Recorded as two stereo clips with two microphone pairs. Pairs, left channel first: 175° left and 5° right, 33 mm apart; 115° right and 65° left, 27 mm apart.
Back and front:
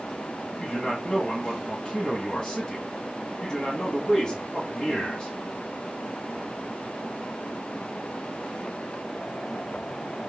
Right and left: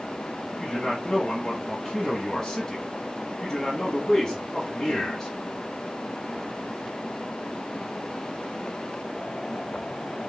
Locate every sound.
0.6 s a man speaking: 170° right, 1.2 m